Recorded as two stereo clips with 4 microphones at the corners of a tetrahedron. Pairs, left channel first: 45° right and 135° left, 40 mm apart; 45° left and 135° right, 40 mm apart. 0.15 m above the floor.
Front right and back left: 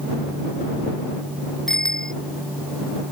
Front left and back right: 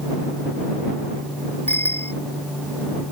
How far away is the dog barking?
I don't hear a dog barking.